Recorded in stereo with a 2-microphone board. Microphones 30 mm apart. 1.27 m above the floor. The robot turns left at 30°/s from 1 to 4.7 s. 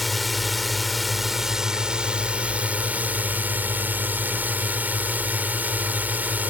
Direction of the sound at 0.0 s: Straight ahead.